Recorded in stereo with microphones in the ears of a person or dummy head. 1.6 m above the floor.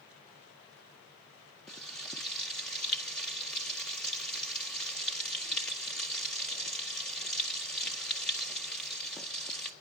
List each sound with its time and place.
1.7 s frying: 5° left (ahead or behind), 0.8 m